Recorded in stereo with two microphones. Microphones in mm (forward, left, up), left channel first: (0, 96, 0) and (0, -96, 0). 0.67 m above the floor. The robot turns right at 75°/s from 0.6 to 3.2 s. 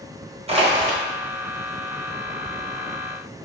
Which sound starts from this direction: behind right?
Crushing, at 0.5 s.